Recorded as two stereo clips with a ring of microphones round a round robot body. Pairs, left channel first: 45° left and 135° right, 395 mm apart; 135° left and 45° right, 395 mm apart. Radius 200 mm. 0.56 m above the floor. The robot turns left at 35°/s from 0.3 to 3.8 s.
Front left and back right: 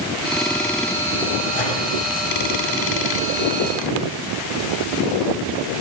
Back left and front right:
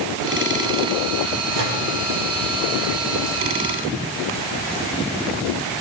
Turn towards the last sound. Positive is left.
turn(degrees=-85)